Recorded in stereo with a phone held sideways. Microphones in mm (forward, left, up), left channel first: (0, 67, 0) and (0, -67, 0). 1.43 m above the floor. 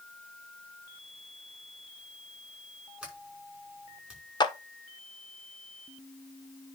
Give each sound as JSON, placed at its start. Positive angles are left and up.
{"t": 3.0, "sound": "a sliding door", "side_deg": -10, "distance_m": 5.5}
{"t": 4.4, "sound": "a clap", "side_deg": 35, "distance_m": 1.0}